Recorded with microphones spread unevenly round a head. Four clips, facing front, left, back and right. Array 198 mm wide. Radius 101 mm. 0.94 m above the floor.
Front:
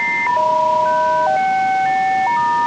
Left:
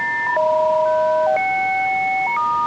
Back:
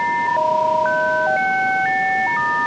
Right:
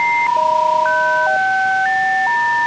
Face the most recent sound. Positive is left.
No sound to turn to.